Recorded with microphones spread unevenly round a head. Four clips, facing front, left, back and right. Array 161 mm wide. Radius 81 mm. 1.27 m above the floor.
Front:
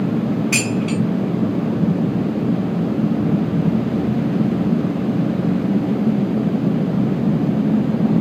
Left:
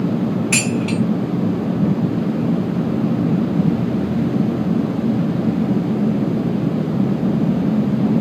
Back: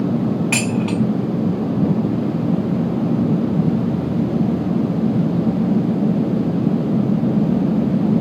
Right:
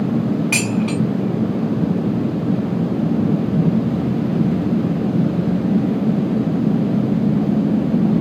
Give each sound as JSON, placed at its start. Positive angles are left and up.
{"t": 0.5, "sound": "dishes clattering", "azimuth_deg": -160, "distance_m": 1.5}